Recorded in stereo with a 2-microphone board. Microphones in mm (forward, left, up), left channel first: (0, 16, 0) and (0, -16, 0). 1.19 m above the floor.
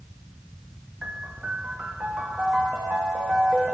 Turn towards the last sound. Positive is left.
turn(degrees=-50)  # may be behind; listen again after turning